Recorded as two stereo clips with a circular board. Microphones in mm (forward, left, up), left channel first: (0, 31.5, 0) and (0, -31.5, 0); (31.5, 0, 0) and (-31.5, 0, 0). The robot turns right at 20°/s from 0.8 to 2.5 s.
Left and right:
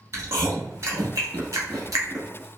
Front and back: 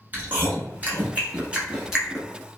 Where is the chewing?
125° right, 1.0 m; by 2.3 s 95° right, 1.0 m.